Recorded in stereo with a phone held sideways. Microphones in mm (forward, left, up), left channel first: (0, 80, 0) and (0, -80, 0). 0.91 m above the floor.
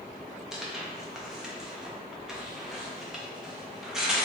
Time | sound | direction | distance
0.5 | tearing paper | centre (ahead or behind) | 0.5 m